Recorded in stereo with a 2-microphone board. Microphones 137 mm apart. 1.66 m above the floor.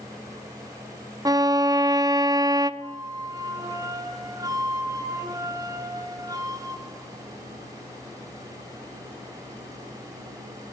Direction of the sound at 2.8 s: 25° right (ahead or behind).